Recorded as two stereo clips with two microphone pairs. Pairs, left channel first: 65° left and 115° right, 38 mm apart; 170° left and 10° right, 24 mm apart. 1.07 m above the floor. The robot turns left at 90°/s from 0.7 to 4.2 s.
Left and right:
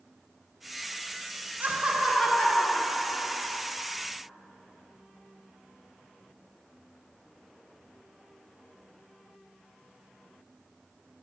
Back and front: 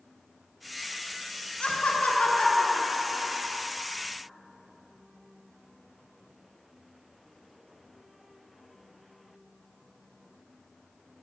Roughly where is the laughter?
Behind right.